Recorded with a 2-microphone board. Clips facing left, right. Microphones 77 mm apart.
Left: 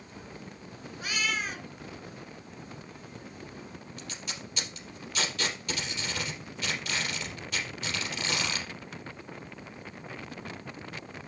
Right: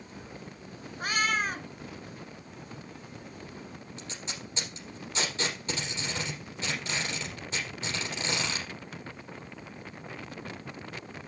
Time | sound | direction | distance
1.0 | a cat meowing | 45° right (ahead or behind) | 0.8 m
4.0 | tape being pulled | 25° right (ahead or behind) | 4 m